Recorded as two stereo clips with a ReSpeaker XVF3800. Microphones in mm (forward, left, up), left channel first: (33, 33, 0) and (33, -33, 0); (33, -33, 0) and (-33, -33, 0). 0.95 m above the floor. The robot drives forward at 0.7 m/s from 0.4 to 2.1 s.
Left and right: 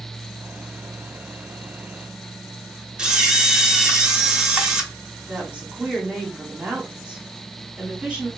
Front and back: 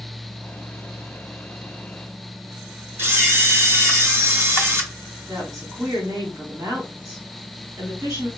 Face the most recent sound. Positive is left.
turn(degrees=-165)